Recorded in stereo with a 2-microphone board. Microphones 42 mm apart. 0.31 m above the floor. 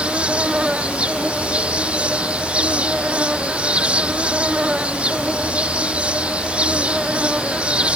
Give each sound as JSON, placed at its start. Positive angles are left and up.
{"t": 0.0, "sound": "an insect", "side_deg": -30}